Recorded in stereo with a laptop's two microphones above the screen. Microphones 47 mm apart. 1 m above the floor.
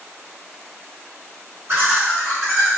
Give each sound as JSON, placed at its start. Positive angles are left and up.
{"t": 1.7, "sound": "laughter", "side_deg": -60, "distance_m": 1.7}